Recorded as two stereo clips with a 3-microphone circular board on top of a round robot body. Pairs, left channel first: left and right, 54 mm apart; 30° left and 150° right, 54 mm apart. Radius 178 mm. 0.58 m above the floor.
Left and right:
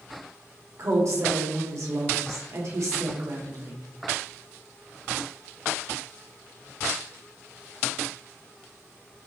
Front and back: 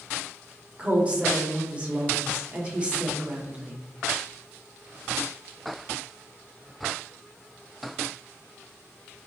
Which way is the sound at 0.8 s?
80° right.